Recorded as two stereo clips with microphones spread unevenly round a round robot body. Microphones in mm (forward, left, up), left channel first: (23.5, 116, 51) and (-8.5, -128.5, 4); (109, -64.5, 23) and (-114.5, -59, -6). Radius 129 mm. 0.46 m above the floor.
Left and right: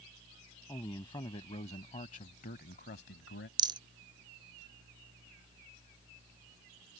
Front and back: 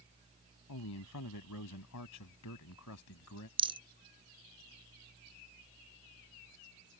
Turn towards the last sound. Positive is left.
turn(degrees=-140)